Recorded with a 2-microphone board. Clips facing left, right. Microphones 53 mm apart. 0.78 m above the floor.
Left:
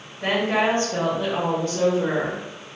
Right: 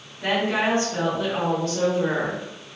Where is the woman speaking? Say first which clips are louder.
Left 1 dB; 35° left (ahead or behind), 1.5 m; by 2.4 s 10° left (ahead or behind), 1.5 m.